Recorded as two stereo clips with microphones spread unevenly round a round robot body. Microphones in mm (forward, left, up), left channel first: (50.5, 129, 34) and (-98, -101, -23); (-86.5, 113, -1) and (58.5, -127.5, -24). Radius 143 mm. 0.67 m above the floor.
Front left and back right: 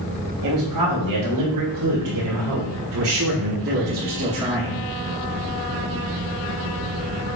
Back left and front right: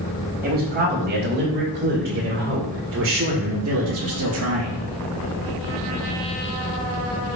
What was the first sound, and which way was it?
A man speaking, 120° right.